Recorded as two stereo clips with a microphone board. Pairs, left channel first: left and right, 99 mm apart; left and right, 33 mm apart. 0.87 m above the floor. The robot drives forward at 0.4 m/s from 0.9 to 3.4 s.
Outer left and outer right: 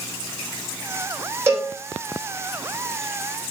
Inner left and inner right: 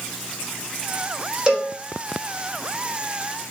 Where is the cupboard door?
No cupboard door in this recording.